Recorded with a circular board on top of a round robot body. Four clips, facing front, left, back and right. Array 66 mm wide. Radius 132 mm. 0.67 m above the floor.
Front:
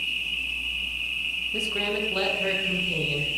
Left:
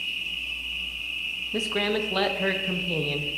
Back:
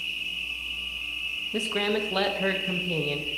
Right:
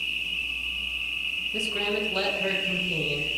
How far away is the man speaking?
About 0.9 m.